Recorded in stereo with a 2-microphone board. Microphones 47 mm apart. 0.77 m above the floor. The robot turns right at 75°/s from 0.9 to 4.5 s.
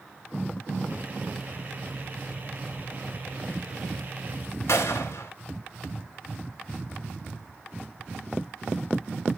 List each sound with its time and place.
4.7 s a gunshot: 75° left (ahead or behind), 2 m